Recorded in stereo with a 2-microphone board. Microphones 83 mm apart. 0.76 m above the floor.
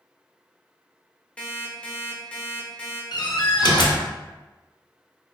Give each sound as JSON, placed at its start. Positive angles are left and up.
{"t": 1.4, "sound": "an alarm clock", "side_deg": 15, "distance_m": 0.8}
{"t": 3.1, "sound": "a door slam", "side_deg": 60, "distance_m": 0.7}